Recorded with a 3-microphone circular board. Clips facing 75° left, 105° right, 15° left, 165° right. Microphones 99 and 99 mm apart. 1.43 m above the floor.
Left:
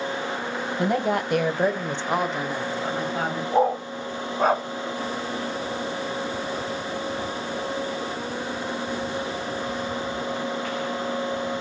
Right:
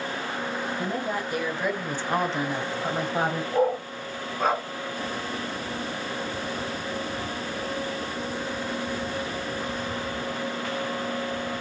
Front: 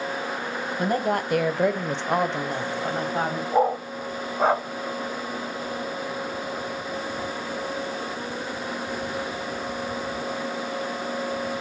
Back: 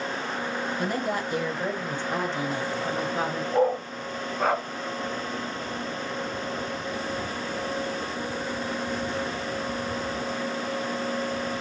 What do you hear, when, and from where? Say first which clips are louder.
0.8 s a woman speaking: left 10 dB, front 7 dB; 65° left, 1.0 m; by 3.4 s 40° right, 1.5 m
3.5 s a dog barking: left 4 dB, front 2 dB; 60° left, 1.4 m